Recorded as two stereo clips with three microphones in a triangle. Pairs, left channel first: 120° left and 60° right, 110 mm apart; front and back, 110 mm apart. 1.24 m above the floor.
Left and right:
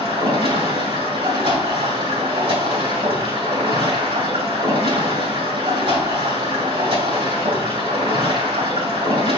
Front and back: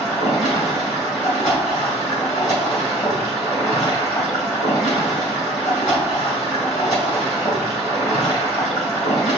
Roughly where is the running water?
Ahead right.